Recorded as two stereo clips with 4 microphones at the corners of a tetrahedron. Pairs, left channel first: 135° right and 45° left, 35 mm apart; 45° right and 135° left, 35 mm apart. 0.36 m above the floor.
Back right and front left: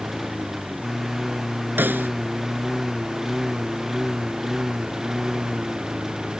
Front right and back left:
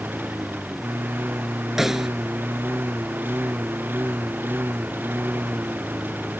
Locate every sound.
0.0 s a lawn mower: 135° left; by 6.4 s 125° left
1.8 s a snare drum: 60° left